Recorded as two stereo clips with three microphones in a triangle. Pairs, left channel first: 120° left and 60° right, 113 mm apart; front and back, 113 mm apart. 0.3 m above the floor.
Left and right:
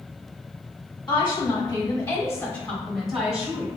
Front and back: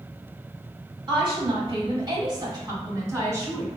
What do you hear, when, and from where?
1.1 s a woman speaking: 145° left, 1.5 m; by 3.7 s 120° right, 1.0 m